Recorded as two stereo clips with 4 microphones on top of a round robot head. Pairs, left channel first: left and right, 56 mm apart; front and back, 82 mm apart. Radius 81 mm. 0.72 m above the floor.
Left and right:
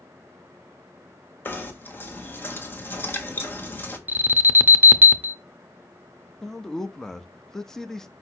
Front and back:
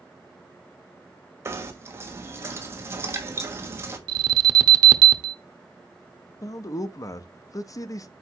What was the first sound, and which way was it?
Knocking, 130° left.